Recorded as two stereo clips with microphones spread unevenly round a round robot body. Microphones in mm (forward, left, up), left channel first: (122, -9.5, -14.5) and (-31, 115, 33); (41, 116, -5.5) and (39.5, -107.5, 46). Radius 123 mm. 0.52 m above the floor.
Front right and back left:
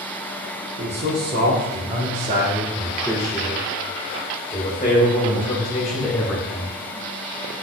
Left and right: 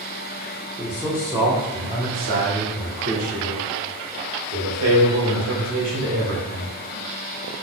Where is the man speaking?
170° left, 1.4 m; by 6.7 s 90° right, 3 m.